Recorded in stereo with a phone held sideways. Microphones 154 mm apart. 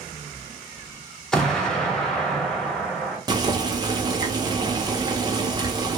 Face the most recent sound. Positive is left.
turn(degrees=-25)  # may be behind; listen again after turning